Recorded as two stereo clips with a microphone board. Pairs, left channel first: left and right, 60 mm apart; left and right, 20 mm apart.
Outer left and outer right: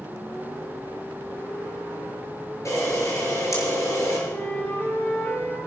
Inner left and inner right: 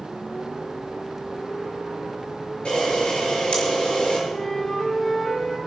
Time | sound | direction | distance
2.6 | a camera shutter | 60° left (ahead or behind) | 6.5 m
4.3 | a flute | 30° left (ahead or behind) | 4 m